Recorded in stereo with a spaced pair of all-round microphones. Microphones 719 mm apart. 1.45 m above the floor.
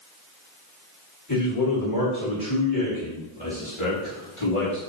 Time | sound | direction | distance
1.3 | a man speaking | 25° left (ahead or behind) | 5 m